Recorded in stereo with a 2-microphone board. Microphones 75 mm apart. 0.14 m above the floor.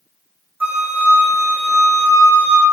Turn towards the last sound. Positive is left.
turn(degrees=-25)  # may be behind; listen again after turning